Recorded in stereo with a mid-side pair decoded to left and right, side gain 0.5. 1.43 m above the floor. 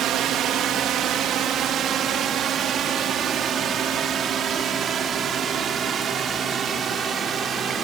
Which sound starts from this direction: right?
A drone, at 0.0 s.